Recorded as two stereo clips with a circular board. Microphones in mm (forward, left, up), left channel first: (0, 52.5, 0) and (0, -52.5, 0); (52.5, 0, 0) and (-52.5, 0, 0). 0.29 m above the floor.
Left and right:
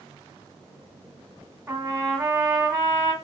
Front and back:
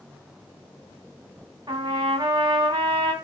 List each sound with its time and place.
1.7 s a trumpet: 145° right, 2 m